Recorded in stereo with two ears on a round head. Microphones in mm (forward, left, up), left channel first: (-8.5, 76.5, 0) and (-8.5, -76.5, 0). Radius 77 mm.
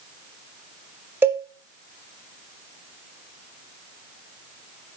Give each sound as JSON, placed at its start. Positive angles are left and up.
{"t": 1.2, "sound": "a cowbell", "side_deg": -15, "distance_m": 1.5}